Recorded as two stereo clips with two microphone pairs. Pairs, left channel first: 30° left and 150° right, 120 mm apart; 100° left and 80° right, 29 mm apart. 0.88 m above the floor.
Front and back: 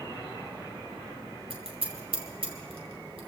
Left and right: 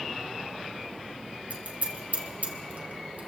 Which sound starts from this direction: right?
Scissors, at 1.5 s.